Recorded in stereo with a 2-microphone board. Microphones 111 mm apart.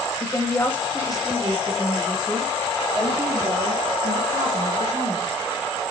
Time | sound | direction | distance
0.2 | a woman speaking | 30° left (ahead or behind) | 1.2 m